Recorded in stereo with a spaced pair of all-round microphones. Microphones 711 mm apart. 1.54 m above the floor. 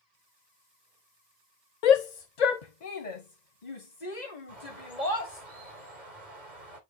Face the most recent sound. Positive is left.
turn(degrees=70)  # may be behind; listen again after turning